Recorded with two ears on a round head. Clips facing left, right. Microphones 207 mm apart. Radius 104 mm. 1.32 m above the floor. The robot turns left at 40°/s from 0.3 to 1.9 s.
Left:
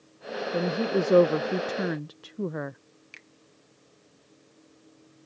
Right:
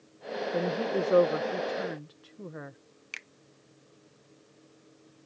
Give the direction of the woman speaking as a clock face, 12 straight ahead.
6 o'clock.